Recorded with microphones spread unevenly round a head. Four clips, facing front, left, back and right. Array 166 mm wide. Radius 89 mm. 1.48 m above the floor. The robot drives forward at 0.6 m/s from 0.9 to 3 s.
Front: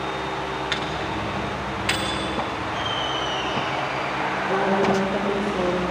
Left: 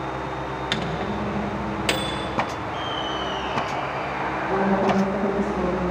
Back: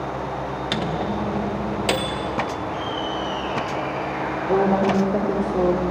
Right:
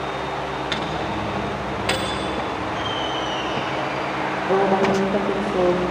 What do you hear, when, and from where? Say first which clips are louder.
0.7 s a microwave: right 2 dB, back 3 dB; 175° left, 1.2 m; by 2.2 s straight behind, 1.9 m
2.6 s laughter: right 3 dB, even; 35° left, 9 m
4.5 s a woman speaking: right 3 dB, back 3 dB; 130° right, 3.5 m